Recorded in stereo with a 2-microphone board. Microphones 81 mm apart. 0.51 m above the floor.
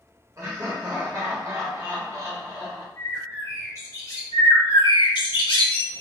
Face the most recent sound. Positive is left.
turn(degrees=80)